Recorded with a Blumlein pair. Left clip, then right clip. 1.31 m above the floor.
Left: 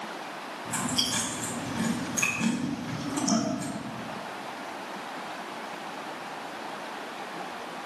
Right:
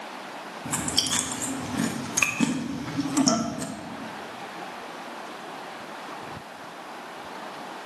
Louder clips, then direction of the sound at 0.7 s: Right 2 dB; 30° right.